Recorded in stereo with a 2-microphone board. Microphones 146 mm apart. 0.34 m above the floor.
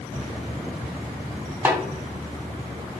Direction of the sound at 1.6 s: 15° right (ahead or behind).